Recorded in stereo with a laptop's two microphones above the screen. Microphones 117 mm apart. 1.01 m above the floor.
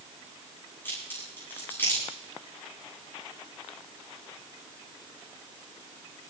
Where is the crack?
20° left (ahead or behind), 9.5 m.